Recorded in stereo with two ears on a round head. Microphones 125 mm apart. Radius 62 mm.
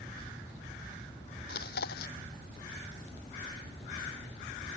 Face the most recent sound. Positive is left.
turn(degrees=85)